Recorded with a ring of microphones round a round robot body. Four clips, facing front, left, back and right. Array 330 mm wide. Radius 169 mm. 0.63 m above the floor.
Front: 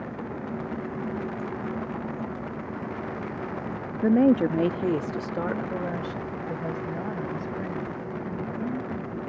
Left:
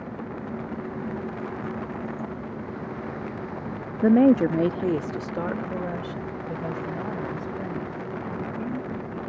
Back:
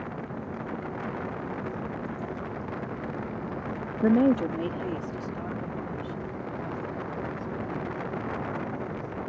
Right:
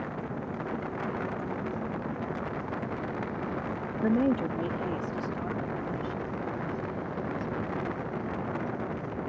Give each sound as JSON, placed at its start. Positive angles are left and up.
{"t": 4.0, "sound": "a woman speaking", "azimuth_deg": 105}